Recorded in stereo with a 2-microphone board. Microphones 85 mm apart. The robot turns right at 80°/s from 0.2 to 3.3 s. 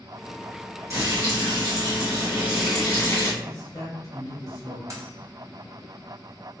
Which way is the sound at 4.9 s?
35° right (ahead or behind).